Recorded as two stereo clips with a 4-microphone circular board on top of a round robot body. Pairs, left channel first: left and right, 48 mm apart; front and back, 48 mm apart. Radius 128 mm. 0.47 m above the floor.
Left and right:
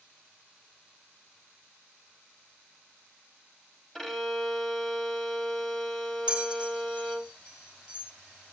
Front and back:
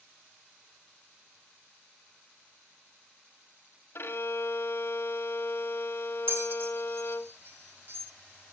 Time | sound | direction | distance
4.0 | a violin | 10° left | 1.5 m
6.3 | a bell | 160° right | 2.5 m